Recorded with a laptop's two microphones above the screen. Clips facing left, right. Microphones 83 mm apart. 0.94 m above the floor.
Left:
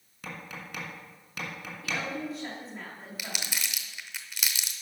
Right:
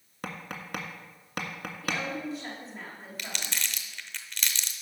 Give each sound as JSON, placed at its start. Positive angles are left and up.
{"t": 0.2, "sound": "tapping", "side_deg": -60, "distance_m": 1.7}
{"t": 1.8, "sound": "a woman speaking", "side_deg": 0, "distance_m": 2.0}
{"t": 3.2, "sound": "crumpling", "side_deg": 10, "distance_m": 0.7}